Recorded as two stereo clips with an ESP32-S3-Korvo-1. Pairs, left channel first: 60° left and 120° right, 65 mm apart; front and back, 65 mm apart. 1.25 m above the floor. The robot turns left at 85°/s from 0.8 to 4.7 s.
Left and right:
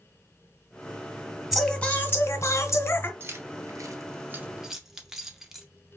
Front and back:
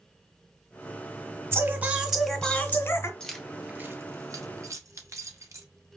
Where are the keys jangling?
75° right, 0.8 m; by 5.7 s 160° left, 0.8 m.